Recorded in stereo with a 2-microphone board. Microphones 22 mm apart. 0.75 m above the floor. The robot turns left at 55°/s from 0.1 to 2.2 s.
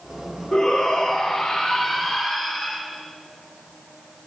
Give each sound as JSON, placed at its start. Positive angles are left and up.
{"t": 0.5, "sound": "a shout", "azimuth_deg": 110, "distance_m": 0.8}